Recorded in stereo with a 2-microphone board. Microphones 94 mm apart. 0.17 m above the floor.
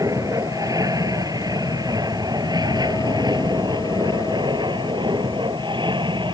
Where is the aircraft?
40° right (ahead or behind); by 6.3 s 55° right (ahead or behind).